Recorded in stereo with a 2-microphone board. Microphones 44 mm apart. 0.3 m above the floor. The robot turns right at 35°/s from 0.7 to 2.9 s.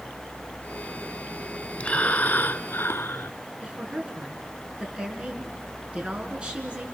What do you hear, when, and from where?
1.8 s breathing: 35° left, 0.7 m; by 3.3 s 70° left, 0.7 m
3.6 s a woman speaking: 25° right (ahead or behind), 4 m